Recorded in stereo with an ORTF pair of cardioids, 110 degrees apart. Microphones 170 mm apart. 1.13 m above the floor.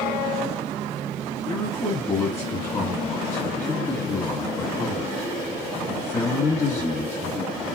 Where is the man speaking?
15° left, 1.8 m.